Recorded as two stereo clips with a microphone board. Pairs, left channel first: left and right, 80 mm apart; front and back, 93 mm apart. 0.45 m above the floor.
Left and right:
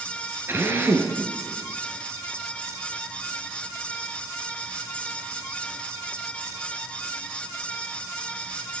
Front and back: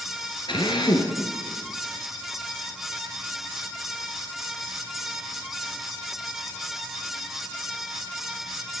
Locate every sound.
0.5 s a drill: 30° right, 5 m